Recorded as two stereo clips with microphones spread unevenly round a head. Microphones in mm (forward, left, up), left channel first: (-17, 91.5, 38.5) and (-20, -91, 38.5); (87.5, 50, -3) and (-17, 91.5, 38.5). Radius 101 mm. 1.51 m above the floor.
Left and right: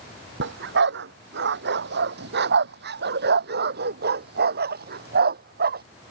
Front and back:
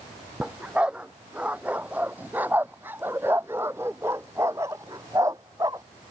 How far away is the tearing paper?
I don't hear tearing paper.